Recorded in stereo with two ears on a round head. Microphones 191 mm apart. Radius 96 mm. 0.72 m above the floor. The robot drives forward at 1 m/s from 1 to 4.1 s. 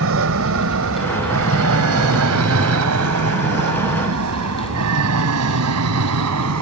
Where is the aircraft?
65° right (ahead or behind); by 6.6 s 75° right (ahead or behind).